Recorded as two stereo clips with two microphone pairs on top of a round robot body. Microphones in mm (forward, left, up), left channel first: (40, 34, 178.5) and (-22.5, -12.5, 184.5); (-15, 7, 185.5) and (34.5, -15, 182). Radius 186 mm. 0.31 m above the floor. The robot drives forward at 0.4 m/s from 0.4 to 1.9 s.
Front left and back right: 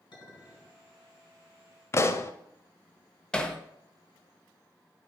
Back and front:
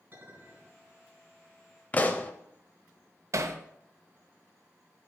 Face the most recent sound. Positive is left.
turn(degrees=-40)